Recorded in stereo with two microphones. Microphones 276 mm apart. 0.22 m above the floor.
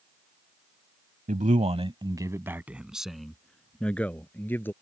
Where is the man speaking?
30° right (ahead or behind); by 4.7 s 5° left (ahead or behind).